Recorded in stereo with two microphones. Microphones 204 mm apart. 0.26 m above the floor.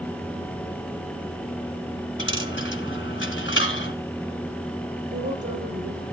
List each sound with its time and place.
2.2 s a dropped coin: 70° left (ahead or behind), 1.3 m
5.1 s a woman speaking: 65° right (ahead or behind), 5.5 m